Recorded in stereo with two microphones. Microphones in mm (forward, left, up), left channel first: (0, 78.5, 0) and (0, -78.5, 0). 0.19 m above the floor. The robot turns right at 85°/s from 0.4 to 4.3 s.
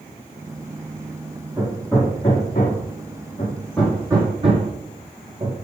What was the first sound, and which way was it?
Hammering, 15° right (ahead or behind).